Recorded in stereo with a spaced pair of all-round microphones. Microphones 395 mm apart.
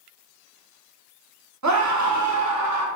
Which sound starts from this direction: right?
A scream, at 1.6 s.